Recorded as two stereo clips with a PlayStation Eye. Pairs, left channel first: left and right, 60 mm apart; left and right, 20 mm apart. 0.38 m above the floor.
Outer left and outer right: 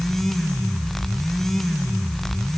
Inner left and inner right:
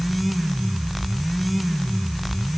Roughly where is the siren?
I don't hear a siren.